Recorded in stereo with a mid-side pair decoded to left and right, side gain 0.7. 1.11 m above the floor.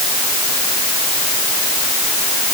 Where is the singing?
No singing in this recording.